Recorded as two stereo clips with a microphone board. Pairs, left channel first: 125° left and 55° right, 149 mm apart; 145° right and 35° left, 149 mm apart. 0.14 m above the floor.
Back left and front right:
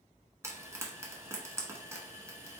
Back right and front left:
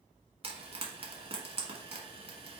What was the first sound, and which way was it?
Frying, 10° left.